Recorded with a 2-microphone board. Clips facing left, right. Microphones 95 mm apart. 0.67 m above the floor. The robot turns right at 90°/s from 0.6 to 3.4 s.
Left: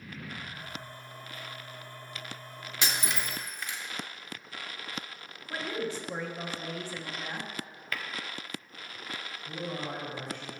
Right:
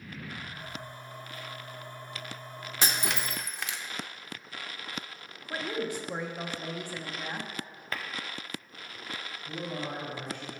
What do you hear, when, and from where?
2.8 s breaking glass: 40° right (ahead or behind), 0.6 m; by 3.8 s 90° right, 0.6 m
5.5 s a woman speaking: 15° right (ahead or behind), 1.0 m
7.9 s tapping: 30° right (ahead or behind), 0.5 m
9.4 s a man speaking: 5° left (ahead or behind), 4 m